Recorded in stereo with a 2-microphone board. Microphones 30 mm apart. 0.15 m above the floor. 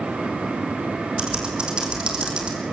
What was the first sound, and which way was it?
Typing on a keyboard, 35° right (ahead or behind).